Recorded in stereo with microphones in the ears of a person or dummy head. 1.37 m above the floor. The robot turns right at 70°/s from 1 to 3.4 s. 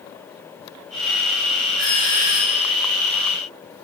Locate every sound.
1.8 s a doorbell: 120° left, 3 m; by 2.6 s straight behind, 3 m